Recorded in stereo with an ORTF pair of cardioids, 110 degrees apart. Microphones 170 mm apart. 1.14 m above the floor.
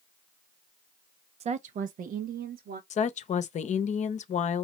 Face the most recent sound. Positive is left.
turn(degrees=45)